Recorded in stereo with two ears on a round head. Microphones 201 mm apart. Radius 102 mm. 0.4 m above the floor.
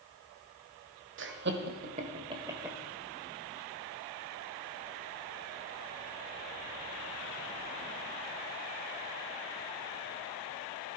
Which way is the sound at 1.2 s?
55° right (ahead or behind).